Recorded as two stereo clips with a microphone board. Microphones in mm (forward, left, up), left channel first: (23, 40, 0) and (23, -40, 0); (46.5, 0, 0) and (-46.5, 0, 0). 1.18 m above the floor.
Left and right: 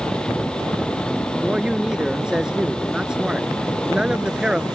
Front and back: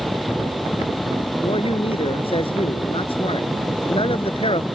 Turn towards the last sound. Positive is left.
turn(degrees=-10)